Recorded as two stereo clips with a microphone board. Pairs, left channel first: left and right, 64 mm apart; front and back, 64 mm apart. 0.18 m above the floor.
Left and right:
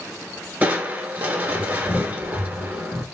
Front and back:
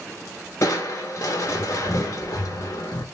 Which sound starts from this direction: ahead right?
Crushing, at 0.6 s.